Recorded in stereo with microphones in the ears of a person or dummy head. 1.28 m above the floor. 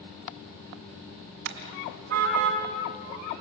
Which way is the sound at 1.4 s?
65° right (ahead or behind).